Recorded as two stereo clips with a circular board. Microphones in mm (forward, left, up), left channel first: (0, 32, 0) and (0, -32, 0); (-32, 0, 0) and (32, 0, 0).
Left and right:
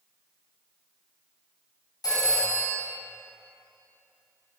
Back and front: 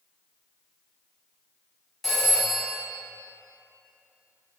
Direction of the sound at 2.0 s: 90° left.